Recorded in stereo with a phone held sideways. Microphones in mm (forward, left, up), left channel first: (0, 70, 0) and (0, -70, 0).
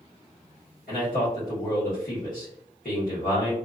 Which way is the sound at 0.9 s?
80° left.